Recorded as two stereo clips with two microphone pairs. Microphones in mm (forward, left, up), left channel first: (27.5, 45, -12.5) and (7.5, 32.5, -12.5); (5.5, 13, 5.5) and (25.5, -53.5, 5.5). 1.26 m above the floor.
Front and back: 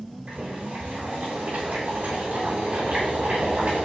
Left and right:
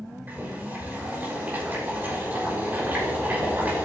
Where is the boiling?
140° right, 6.5 m.